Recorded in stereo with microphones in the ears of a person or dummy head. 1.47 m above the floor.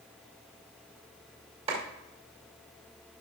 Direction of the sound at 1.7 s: 35° right (ahead or behind).